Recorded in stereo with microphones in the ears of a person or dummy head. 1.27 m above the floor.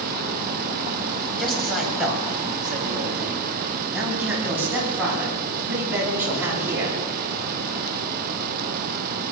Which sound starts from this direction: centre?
A man speaking, at 1.4 s.